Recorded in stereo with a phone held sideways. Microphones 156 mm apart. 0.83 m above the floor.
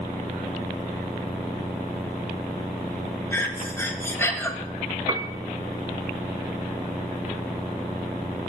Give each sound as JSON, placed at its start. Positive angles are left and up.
{"t": 3.3, "sound": "breathing", "side_deg": 15, "distance_m": 0.8}
{"t": 5.1, "sound": "a piano", "side_deg": -30, "distance_m": 0.5}